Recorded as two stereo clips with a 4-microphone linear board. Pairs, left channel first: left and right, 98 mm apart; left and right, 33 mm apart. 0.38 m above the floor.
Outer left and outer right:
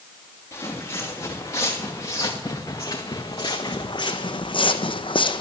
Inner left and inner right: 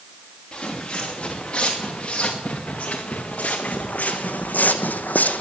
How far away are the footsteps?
About 3 m.